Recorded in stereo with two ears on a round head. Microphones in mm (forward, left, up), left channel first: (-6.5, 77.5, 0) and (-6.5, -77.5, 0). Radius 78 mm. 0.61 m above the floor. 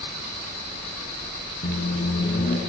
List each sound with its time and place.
1.6 s a microwave: 50° left (ahead or behind), 4.5 m